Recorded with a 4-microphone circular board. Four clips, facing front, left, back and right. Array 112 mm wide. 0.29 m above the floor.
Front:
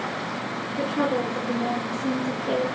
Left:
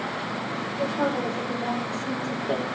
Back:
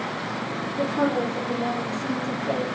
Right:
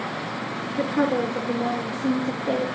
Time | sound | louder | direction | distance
0.8 | a woman speaking | right 4 dB, back 1 dB | 85° right | 4.5 m